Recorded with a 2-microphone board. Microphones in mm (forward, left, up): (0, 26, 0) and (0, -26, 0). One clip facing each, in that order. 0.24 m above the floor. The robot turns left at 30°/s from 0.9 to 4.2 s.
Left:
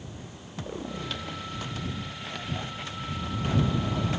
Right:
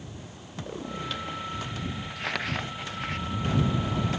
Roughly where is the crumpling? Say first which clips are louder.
Right 5 dB; right.